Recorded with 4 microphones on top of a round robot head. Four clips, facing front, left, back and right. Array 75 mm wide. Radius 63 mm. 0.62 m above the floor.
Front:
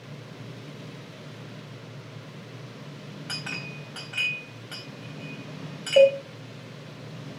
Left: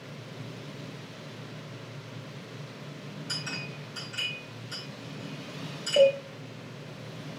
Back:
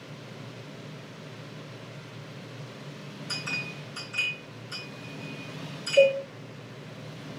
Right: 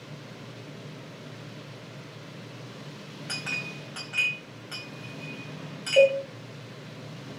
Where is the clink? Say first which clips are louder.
Right 5 dB, back 1 dB; 30° right, 3 m.